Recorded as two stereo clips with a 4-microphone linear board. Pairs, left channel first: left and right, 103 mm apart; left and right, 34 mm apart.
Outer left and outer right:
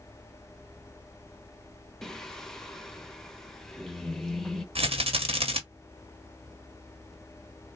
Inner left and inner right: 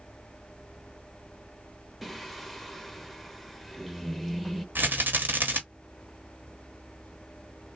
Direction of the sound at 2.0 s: 5° left (ahead or behind).